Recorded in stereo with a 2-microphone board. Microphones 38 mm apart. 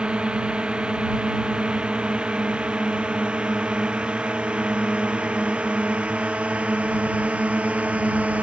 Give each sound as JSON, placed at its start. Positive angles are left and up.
{"t": 0.0, "sound": "a drone", "side_deg": -25}